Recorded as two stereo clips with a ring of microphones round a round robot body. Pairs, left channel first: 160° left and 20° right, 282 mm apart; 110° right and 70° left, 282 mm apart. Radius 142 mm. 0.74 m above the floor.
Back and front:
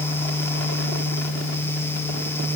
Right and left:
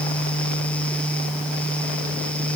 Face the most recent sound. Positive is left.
No sound to turn to.